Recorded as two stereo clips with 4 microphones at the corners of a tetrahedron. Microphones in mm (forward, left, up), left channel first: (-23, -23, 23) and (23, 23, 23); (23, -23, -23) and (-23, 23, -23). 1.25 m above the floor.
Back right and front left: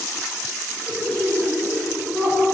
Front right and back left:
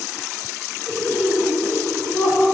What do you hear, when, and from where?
0.9 s laughter: 175° right, 1.6 m; by 2.4 s 160° left, 3 m